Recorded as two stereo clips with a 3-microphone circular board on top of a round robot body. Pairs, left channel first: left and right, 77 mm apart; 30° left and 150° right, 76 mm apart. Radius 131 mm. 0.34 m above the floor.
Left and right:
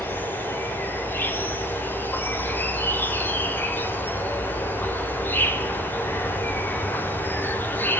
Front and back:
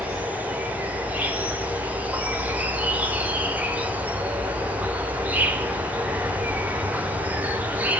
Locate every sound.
0.0 s an insect: 145° left, 3.5 m